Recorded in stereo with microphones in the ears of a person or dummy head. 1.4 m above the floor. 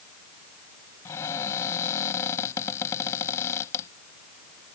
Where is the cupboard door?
25° left (ahead or behind).